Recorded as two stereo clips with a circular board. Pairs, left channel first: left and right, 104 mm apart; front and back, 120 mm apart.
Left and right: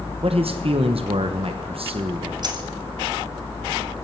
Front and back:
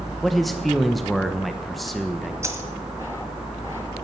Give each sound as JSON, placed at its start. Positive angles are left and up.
{"t": 0.2, "sound": "a man speaking", "azimuth_deg": -90, "distance_m": 1.0}
{"t": 2.4, "sound": "a dropped coin", "azimuth_deg": -120, "distance_m": 1.5}